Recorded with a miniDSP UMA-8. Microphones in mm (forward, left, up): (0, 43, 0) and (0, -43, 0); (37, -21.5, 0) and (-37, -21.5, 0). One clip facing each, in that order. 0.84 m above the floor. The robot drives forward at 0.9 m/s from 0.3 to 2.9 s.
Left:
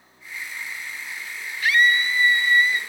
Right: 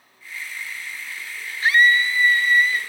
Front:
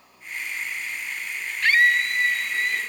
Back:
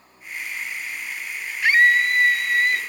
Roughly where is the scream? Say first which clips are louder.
Right 2 dB, back 3 dB; right.